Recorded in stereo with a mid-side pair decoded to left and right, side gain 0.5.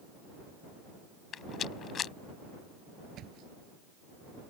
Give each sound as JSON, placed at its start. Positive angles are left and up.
{"t": 1.3, "sound": "a rattle", "azimuth_deg": 50}
{"t": 3.1, "sound": "a thud", "azimuth_deg": -65}